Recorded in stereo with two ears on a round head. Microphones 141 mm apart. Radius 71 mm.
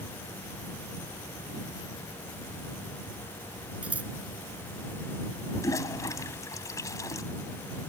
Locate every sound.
3.8 s scissors: 10° right (ahead or behind)
5.6 s a toilet flushing: 20° left (ahead or behind)